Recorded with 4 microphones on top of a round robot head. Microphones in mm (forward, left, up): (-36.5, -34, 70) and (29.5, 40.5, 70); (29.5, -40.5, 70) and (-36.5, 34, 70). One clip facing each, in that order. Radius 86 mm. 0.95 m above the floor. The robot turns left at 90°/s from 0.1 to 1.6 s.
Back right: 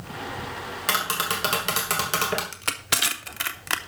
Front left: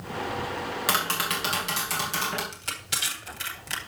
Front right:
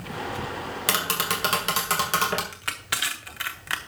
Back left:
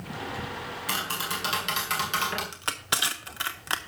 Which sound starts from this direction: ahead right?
Tapping, at 0.9 s.